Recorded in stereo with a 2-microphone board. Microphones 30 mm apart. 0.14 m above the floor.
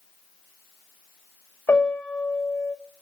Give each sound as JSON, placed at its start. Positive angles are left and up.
{"t": 1.7, "sound": "a piano", "side_deg": 75, "distance_m": 7.0}